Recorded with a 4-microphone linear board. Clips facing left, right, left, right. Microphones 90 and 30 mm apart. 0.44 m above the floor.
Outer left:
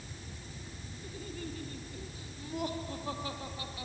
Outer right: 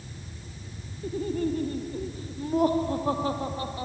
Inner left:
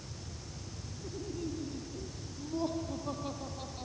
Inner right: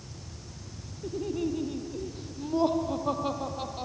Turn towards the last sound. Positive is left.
turn(degrees=-35)  # may be behind; listen again after turning